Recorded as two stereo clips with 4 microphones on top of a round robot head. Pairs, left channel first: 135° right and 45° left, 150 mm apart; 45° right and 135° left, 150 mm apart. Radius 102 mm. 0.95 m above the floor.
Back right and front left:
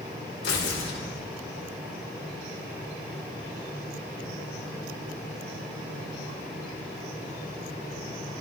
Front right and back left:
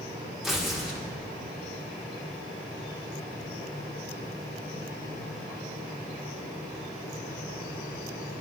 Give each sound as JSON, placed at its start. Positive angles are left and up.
{"t": 0.4, "sound": "tearing paper", "azimuth_deg": -135, "distance_m": 1.2}